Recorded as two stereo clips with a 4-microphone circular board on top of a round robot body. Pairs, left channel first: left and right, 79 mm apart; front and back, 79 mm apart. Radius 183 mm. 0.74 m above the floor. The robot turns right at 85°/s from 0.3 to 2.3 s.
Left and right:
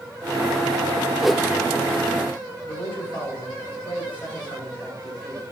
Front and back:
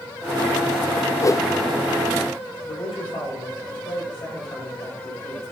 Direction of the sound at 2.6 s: 20° left.